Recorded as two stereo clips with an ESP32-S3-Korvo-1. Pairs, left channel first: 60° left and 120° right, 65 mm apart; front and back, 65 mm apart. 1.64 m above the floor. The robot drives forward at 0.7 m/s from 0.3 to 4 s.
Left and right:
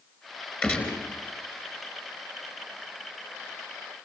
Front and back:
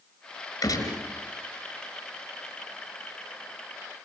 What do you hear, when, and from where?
0.6 s a gunshot: 10° right, 5.5 m